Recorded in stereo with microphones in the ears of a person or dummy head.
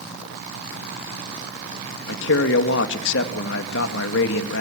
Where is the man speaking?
70° left (ahead or behind), 2 m.